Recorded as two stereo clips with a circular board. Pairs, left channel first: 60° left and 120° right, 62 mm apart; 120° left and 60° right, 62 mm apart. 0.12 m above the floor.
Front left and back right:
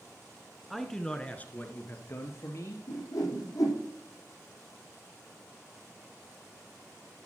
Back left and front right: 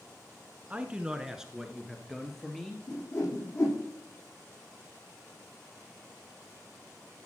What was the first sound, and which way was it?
A man speaking, 30° right.